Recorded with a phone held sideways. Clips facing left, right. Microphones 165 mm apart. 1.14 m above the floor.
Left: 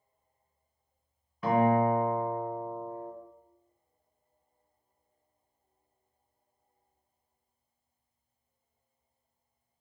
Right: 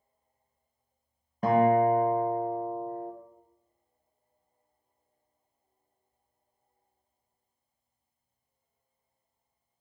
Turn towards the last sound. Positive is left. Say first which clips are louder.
# right 3 dB
turn(degrees=-45)  # may be behind; listen again after turning